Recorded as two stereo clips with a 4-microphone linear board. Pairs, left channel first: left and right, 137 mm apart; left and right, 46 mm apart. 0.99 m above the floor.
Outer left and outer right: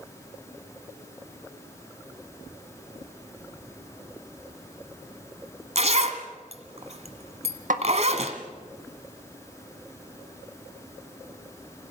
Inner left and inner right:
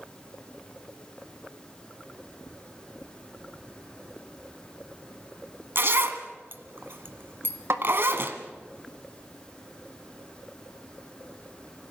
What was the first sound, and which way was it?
A zipper, 55° right (ahead or behind).